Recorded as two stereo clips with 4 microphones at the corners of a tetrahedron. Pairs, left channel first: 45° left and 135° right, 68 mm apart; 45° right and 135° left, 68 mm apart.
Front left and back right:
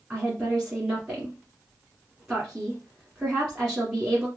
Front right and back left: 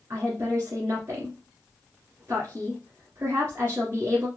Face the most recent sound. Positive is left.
turn(degrees=145)